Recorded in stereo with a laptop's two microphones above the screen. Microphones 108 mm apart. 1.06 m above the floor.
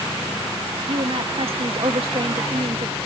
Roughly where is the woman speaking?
Right.